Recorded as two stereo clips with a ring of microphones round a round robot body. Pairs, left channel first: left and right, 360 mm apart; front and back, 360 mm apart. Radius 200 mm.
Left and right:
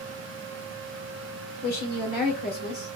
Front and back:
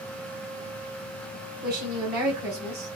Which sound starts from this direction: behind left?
A woman speaking, at 1.6 s.